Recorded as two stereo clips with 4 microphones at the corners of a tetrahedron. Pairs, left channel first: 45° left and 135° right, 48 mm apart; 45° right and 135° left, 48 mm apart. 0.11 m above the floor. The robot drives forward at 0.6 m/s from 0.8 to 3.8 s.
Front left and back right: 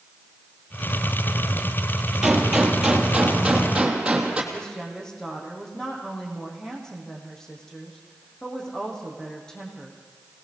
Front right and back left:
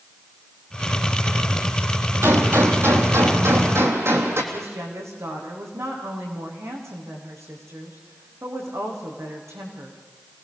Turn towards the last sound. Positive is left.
turn(degrees=125)